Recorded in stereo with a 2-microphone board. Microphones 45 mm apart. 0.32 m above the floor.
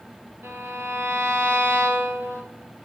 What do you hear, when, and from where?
0.4 s a violin: 80° right, 5.5 m